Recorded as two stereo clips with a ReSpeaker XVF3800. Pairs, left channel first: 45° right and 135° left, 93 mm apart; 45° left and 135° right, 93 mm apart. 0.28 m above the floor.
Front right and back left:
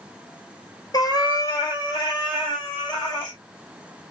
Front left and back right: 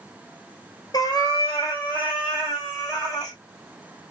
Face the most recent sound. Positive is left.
turn(degrees=-5)